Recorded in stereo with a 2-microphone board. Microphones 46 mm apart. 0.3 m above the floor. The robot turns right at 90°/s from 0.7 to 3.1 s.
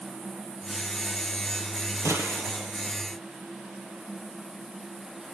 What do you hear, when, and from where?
2.0 s a gunshot: 90° right, 3.5 m; by 2.7 s 30° right, 3.5 m